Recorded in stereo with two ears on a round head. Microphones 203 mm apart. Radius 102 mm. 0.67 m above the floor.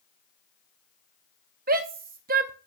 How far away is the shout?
About 0.6 m.